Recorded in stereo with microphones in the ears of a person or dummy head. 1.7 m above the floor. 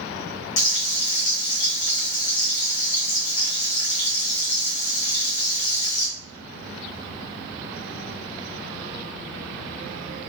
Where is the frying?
45° left (ahead or behind), 0.7 m.